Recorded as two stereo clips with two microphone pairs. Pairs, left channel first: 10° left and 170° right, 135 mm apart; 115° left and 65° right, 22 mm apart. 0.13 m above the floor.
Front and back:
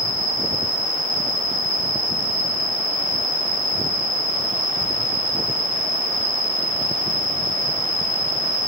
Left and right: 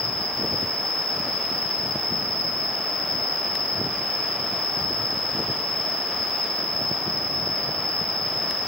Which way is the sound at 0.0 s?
160° right.